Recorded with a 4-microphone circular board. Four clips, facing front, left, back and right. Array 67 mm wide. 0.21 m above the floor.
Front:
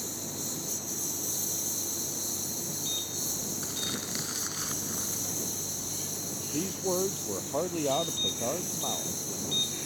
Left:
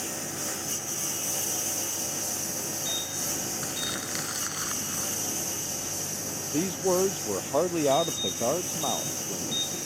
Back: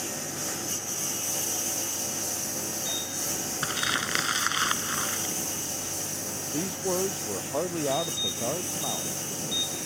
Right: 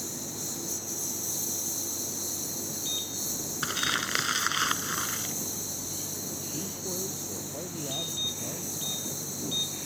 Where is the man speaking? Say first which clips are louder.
Left 15 dB, back 1 dB; 95° left.